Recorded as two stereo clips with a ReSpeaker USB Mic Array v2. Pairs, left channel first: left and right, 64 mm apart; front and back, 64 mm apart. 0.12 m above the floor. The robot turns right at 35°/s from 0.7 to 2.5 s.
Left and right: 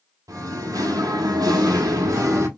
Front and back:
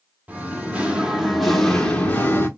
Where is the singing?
115° right, 0.9 m; by 2.5 s 50° right, 0.9 m.